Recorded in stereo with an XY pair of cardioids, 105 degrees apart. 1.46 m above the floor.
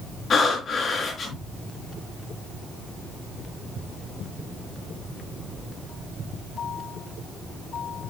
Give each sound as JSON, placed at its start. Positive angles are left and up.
{"t": 0.3, "sound": "breathing", "azimuth_deg": 45, "distance_m": 4.0}